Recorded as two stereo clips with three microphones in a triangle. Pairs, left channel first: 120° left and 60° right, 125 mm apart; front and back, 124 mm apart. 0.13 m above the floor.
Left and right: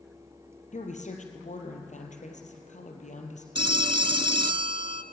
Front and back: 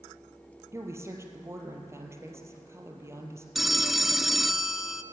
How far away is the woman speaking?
About 3.5 m.